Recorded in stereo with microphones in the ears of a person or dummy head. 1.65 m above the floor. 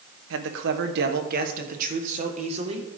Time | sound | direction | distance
0.3 | a man speaking | 70° right (ahead or behind) | 1.4 m